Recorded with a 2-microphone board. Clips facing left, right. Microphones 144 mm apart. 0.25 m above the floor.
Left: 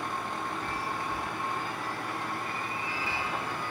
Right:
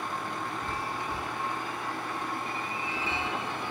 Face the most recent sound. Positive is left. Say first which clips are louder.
# even
turn(degrees=-25)  # may be behind; listen again after turning